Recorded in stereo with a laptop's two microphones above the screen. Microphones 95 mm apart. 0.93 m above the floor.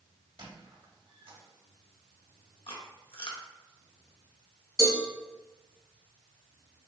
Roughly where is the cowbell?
Right.